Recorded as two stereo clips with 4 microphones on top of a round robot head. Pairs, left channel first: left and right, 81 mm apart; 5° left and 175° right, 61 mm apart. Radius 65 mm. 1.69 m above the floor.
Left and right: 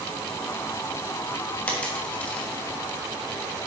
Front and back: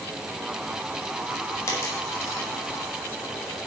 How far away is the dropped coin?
About 1.3 m.